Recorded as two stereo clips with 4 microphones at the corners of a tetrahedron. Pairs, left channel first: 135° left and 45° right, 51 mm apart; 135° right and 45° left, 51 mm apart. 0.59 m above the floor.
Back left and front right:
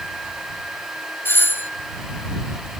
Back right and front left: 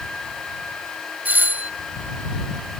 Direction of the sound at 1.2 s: 95° left.